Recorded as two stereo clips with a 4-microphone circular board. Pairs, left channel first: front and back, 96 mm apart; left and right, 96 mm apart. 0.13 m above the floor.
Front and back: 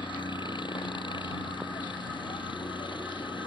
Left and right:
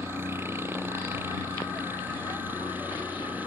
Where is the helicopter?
30° right; by 3.5 s 20° right.